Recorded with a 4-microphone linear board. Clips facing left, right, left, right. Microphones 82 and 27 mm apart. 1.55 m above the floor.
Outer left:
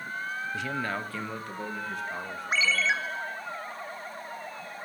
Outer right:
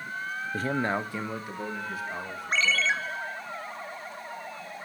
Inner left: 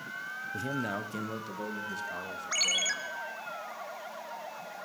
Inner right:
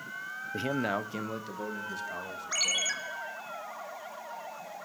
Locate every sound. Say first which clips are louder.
0.5 s a man speaking: outer right 6 dB, inner right 4 dB; 45° right (ahead or behind), 0.7 m; by 3.1 s 5° left (ahead or behind), 3.5 m
2.5 s a ringtone: even, inner left 1 dB; 5° left (ahead or behind), 1.6 m